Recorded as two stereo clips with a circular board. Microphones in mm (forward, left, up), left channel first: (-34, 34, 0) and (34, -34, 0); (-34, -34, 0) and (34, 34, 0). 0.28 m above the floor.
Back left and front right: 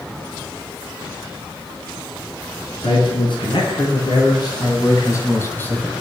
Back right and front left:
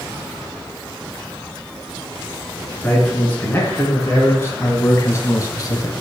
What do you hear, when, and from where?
2.8 s a man speaking: 155° left, 5 m; by 5.9 s 155° right, 2 m